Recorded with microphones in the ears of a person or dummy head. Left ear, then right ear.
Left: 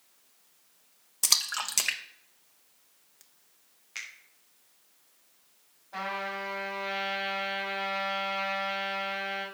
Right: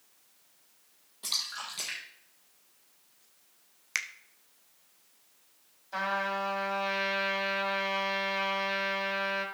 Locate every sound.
1.2 s a splash: 70° left (ahead or behind), 1.0 m
4.0 s a finger snap: 60° right (ahead or behind), 0.9 m
5.9 s a trumpet: 75° right (ahead or behind), 3 m